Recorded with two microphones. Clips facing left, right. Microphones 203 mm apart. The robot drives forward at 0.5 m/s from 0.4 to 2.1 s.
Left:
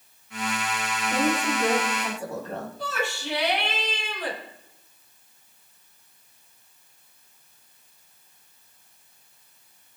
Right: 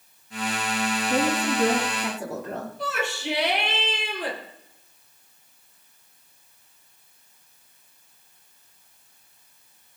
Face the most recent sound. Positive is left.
turn(degrees=-70)  # may be behind; listen again after turning